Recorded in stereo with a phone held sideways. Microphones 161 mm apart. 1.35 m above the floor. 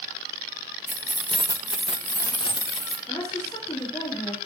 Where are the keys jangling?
55° right (ahead or behind), 1.2 m; by 3.0 s 40° left (ahead or behind), 1.8 m.